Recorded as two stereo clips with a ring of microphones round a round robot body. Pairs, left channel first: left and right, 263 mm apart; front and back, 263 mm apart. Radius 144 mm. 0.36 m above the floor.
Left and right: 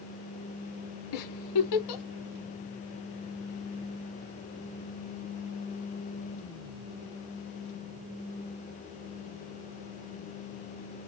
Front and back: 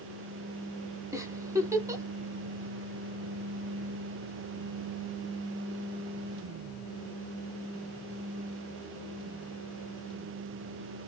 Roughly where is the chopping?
I don't hear chopping.